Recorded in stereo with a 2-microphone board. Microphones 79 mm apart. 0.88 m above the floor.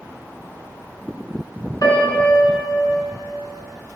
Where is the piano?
55° left (ahead or behind), 3.5 m.